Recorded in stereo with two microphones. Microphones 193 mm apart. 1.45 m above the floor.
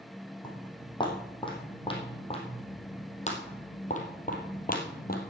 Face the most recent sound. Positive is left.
turn(degrees=50)  # may be behind; listen again after turning